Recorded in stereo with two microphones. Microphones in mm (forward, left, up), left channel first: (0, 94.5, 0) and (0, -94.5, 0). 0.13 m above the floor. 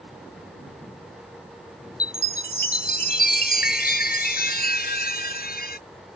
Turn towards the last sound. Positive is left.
turn(degrees=55)  # may be behind; listen again after turning